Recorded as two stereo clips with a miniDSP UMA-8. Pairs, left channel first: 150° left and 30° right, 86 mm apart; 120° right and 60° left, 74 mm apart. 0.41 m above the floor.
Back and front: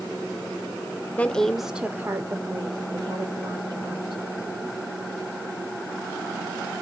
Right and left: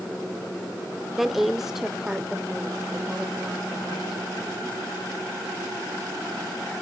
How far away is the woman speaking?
About 0.9 m.